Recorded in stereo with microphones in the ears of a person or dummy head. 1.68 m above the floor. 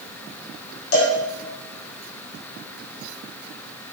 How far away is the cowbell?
About 5 m.